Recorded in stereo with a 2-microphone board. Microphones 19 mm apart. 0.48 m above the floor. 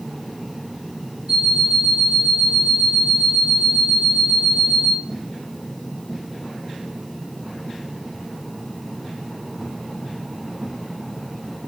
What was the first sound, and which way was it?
An alarm clock, 70° right (ahead or behind).